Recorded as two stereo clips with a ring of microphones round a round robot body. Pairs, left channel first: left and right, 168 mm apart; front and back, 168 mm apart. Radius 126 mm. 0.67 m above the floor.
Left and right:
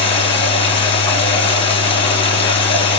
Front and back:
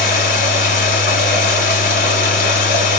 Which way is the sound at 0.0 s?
35° left.